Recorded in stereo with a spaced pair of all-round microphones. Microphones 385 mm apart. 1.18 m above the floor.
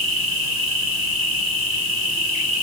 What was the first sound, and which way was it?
An insect, 60° right (ahead or behind).